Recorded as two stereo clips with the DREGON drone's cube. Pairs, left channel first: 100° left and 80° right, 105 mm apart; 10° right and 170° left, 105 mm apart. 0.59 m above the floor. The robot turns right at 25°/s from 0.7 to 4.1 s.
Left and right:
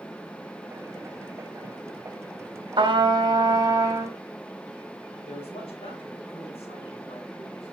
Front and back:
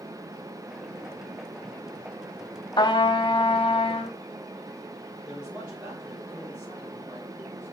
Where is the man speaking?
95° left, 3 m.